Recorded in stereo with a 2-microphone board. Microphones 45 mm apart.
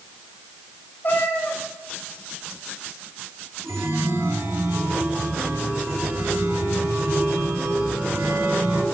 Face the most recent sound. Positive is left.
turn(degrees=-75)  # may be behind; listen again after turning